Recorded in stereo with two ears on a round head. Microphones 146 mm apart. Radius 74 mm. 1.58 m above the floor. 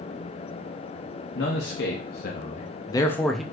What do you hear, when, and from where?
1.4 s a man speaking: 85° left, 1.0 m; by 3.4 s centre (ahead or behind), 0.6 m